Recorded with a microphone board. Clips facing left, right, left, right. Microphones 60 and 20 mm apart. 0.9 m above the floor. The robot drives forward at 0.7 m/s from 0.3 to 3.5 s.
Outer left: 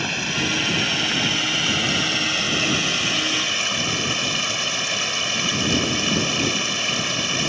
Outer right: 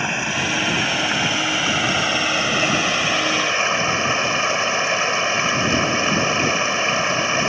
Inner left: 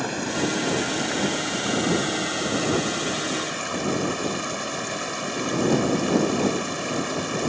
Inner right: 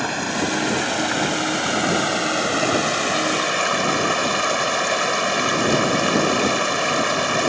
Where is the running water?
25° right (ahead or behind); by 7.5 s 35° right (ahead or behind).